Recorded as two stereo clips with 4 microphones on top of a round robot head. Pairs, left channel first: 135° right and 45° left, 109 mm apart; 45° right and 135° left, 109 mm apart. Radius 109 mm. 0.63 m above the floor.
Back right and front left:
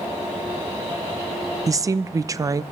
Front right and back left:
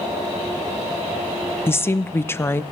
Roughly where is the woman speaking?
Ahead.